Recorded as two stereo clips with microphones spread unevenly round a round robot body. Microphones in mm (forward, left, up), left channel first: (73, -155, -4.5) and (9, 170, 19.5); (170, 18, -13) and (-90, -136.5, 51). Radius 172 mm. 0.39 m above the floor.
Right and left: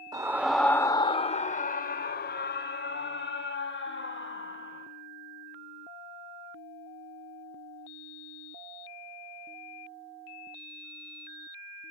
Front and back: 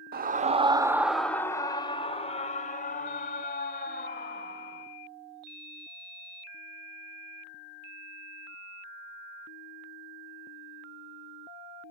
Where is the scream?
175° left, 0.8 m; by 4.9 s 25° right, 2.5 m.